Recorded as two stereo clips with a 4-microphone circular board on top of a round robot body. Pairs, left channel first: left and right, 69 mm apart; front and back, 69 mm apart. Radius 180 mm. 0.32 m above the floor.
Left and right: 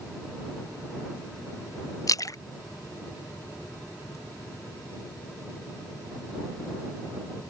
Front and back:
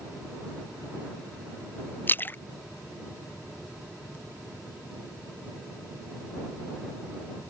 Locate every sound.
2.1 s a splash: 60° left